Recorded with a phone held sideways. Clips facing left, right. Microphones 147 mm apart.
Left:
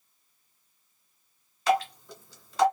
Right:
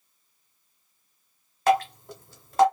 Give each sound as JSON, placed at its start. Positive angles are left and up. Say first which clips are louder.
{"t": 1.7, "sound": "dripping", "louder": "right 3 dB", "side_deg": -50, "distance_m": 1.2}